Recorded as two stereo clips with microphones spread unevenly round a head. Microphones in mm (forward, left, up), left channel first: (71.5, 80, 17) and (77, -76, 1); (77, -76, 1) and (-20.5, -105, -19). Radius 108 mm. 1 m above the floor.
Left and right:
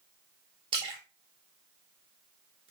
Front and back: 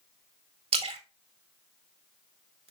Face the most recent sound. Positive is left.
turn(degrees=-155)